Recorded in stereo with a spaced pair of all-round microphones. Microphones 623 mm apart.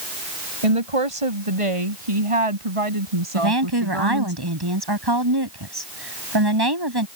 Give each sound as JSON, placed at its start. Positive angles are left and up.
{"t": 0.6, "sound": "a woman speaking", "side_deg": -60}
{"t": 3.4, "sound": "a woman speaking", "side_deg": -40}